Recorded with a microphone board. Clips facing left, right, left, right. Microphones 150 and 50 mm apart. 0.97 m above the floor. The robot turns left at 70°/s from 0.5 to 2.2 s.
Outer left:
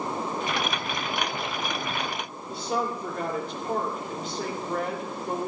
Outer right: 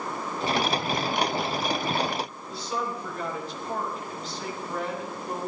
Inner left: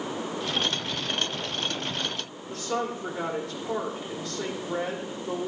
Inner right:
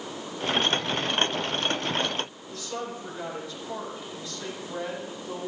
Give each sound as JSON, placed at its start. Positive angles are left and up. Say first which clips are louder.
{"t": 2.5, "sound": "a woman speaking", "louder": "outer left 6 dB, inner left 5 dB", "side_deg": 60, "distance_m": 3.5}